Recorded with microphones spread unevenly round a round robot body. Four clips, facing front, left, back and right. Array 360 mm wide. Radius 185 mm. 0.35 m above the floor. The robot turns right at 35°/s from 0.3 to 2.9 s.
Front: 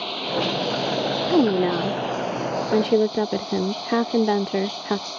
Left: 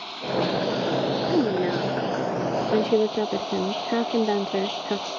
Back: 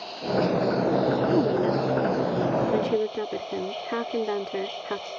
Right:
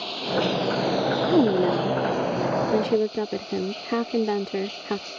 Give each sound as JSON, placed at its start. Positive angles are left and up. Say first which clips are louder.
{"t": 0.0, "sound": "running water", "louder": "right 1 dB, even", "azimuth_deg": -25}
{"t": 1.3, "sound": "a woman speaking", "louder": "right 4 dB, front 3 dB", "azimuth_deg": -35}